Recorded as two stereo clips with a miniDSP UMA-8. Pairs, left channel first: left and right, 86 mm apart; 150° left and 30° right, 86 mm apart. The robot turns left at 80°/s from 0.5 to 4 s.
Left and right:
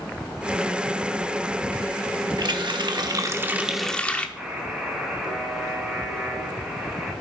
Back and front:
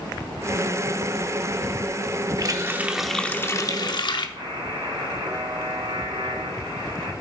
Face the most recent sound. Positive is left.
turn(degrees=-5)